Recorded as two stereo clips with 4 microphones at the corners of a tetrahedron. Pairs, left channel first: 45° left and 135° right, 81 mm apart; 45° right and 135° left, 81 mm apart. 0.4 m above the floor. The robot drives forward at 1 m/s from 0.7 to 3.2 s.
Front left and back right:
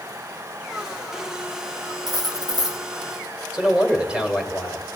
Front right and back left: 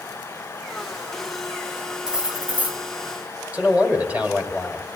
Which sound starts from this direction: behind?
A man speaking, at 3.5 s.